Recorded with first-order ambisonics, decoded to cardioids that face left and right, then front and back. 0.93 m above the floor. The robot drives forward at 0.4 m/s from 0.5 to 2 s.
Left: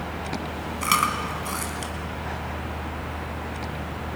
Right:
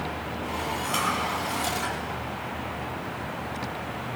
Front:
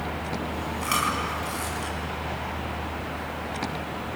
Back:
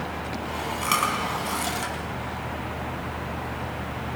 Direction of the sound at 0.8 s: 105° left.